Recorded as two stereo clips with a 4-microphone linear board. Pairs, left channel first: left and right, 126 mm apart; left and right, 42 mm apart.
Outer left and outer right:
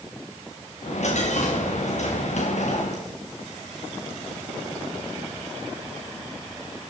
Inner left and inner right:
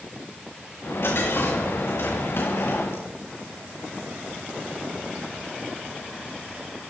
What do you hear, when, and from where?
0.8 s a dropped coin: 65° left (ahead or behind), 5 m